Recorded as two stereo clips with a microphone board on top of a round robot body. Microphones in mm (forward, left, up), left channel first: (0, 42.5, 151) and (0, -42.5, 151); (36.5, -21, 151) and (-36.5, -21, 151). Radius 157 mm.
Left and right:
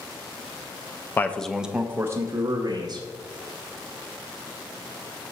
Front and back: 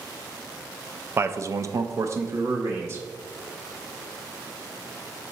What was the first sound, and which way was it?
A man speaking, 145° left.